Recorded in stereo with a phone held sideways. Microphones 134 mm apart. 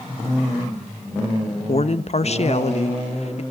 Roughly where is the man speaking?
Left.